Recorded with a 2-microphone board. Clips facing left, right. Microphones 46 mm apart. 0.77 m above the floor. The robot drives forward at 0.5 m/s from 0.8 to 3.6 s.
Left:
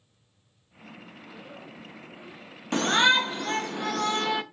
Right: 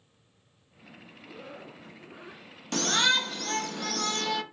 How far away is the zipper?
About 2.5 m.